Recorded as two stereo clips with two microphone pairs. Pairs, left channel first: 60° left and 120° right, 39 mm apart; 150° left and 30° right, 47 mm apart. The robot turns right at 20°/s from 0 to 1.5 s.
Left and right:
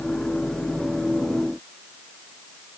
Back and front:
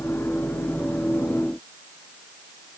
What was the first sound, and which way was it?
Only background noise.